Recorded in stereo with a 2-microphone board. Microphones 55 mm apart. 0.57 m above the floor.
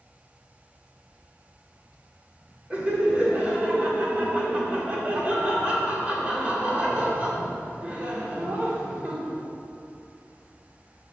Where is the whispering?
15° left (ahead or behind), 0.9 m.